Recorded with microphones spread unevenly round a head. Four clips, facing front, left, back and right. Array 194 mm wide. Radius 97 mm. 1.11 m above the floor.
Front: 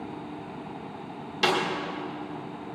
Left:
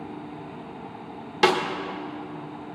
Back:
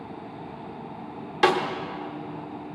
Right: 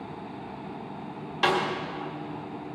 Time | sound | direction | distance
1.4 | a snare drum | 105° left | 1.5 m